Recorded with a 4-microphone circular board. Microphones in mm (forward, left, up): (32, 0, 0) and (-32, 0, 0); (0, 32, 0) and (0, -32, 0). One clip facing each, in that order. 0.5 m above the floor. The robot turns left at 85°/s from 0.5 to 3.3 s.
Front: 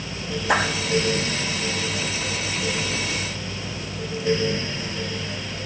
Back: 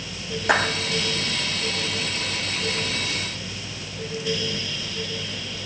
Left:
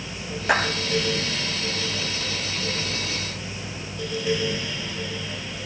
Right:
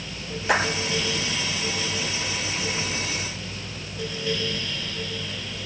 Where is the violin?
I don't hear a violin.